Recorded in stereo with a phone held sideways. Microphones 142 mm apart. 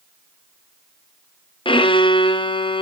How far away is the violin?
About 0.6 m.